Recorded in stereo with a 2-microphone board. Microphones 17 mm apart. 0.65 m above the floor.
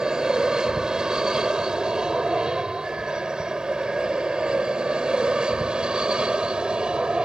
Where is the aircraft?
40° right (ahead or behind); by 7.2 s 60° right (ahead or behind).